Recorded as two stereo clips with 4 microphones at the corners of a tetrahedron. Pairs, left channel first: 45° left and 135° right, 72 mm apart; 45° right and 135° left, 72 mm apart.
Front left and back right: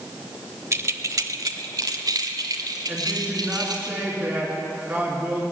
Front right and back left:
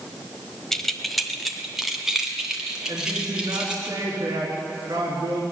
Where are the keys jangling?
125° right, 0.7 m; by 3.9 s 145° right, 2.5 m.